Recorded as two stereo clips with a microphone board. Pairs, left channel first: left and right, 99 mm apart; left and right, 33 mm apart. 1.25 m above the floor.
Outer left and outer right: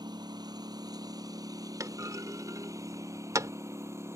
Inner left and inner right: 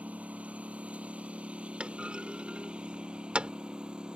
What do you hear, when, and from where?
0.0 s a lawn mower: 45° right (ahead or behind); by 4.2 s 30° right (ahead or behind)
1.8 s a clunk: 35° right (ahead or behind)